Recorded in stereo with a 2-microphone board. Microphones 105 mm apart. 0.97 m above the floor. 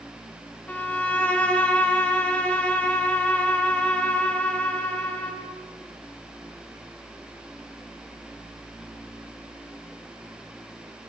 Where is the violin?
15° left (ahead or behind), 1.5 m.